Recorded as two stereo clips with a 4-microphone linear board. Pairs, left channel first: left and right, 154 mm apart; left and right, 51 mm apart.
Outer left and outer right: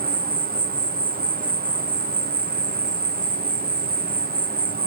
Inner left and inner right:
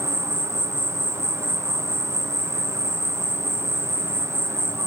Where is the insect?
70° right (ahead or behind), 0.7 m.